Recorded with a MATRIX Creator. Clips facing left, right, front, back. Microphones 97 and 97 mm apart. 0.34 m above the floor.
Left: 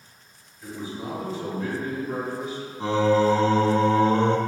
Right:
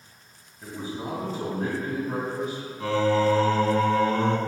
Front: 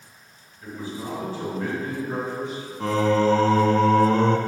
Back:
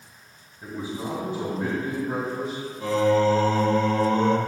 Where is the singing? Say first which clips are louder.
Left 2 dB, even; 25° left, 0.6 m.